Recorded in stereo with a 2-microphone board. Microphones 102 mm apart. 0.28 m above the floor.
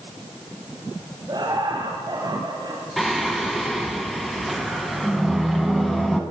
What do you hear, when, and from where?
1.3 s laughter: 45° right (ahead or behind), 1.6 m
3.0 s singing: centre (ahead or behind), 1.3 m